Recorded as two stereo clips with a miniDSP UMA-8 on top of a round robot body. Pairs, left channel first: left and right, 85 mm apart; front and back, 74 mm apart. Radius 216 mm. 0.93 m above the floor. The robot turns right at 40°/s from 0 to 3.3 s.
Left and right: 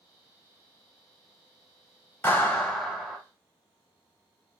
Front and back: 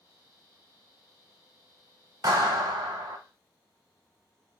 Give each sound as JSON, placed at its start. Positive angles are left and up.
{"t": 2.2, "sound": "a clap", "azimuth_deg": 155, "distance_m": 2.0}